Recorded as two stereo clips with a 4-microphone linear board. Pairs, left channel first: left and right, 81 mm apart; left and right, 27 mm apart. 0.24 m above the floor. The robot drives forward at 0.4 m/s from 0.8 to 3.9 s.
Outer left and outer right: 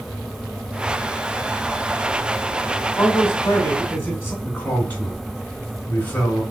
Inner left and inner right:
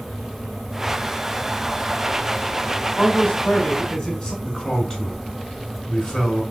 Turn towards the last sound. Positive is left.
turn(degrees=20)  # may be behind; listen again after turning